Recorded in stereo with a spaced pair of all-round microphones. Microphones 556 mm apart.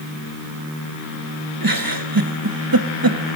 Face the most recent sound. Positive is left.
turn(degrees=-40)  # may be behind; listen again after turning